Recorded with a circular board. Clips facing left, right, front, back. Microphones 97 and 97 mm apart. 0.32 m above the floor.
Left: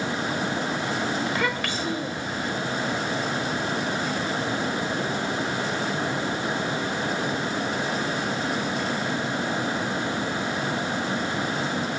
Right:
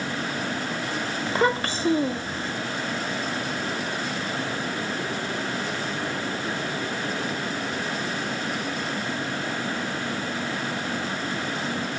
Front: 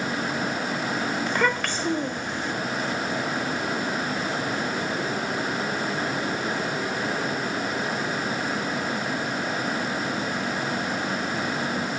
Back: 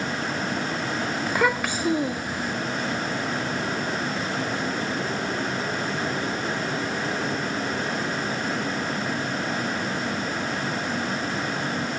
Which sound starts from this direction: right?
A child speaking, at 1.3 s.